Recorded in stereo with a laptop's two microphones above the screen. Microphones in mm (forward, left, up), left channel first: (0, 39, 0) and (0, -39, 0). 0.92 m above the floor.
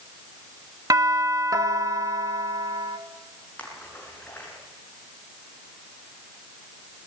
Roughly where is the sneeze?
I don't hear a sneeze.